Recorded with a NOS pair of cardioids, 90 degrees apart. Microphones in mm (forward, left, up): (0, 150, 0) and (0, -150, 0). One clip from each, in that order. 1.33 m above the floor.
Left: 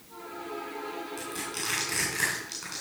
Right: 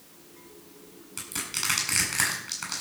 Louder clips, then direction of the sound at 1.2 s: Right 7 dB; 60° right.